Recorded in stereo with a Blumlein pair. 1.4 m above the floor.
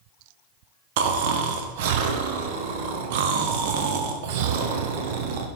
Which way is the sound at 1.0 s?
50° right.